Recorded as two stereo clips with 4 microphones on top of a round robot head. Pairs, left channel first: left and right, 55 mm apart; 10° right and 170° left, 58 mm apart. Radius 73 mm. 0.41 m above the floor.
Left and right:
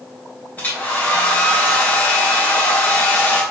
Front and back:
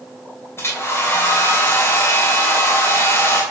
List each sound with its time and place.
0.6 s a hair dryer: 30° left, 3 m